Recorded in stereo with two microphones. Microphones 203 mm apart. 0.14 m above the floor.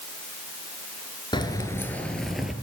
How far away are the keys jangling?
About 1.7 m.